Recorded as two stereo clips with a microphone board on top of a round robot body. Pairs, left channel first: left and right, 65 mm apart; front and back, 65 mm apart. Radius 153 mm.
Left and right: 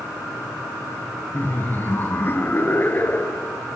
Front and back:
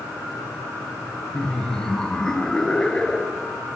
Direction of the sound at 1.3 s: 70° left.